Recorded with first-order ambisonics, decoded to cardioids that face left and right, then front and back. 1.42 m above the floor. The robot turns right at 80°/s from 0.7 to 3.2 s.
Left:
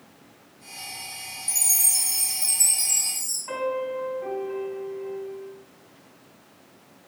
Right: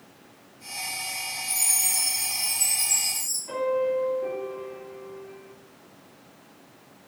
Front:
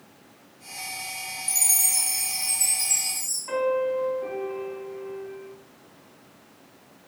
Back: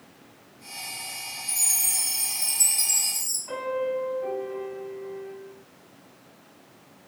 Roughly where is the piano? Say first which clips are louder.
Right 3 dB, front 5 dB; ahead left.